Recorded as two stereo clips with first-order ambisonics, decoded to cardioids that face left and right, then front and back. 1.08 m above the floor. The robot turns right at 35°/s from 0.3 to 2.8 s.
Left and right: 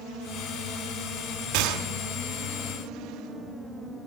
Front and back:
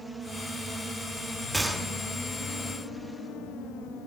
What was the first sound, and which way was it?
A gunshot, 95° right.